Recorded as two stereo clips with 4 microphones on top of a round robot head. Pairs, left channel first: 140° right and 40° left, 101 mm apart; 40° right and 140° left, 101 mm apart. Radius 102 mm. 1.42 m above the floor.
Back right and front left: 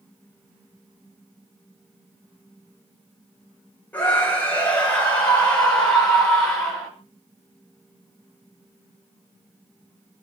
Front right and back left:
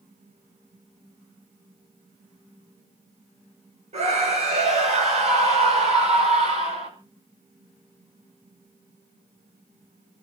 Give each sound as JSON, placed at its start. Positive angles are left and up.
{"t": 3.9, "sound": "a scream", "azimuth_deg": 145, "distance_m": 9.0}